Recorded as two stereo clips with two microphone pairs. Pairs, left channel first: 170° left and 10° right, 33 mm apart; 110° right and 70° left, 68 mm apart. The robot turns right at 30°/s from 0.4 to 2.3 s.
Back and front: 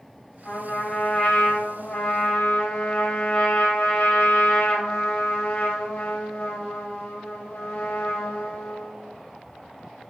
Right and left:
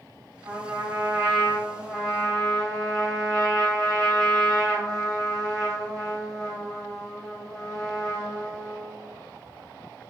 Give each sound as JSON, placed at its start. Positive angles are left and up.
{"t": 0.5, "sound": "a trumpet", "azimuth_deg": 115, "distance_m": 3.0}